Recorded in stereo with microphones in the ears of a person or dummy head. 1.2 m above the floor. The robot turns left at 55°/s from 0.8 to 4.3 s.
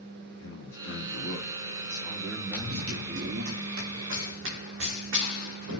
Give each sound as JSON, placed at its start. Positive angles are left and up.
{"t": 0.3, "sound": "a man speaking", "azimuth_deg": 90, "distance_m": 3.0}
{"t": 2.5, "sound": "running footsteps", "side_deg": 0, "distance_m": 3.5}